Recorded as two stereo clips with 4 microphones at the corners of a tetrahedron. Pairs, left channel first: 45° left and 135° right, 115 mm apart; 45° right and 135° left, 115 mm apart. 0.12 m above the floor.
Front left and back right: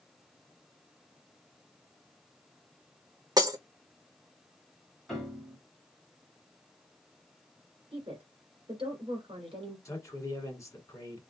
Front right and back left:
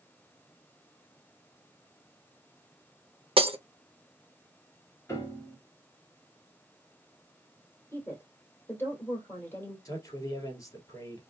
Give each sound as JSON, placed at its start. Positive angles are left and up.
{"t": 3.4, "sound": "breaking glass", "azimuth_deg": 170, "distance_m": 0.6}
{"t": 5.1, "sound": "a piano", "azimuth_deg": -40, "distance_m": 1.6}
{"t": 7.9, "sound": "a woman speaking", "azimuth_deg": -115, "distance_m": 1.9}
{"t": 9.8, "sound": "a man speaking", "azimuth_deg": -5, "distance_m": 1.3}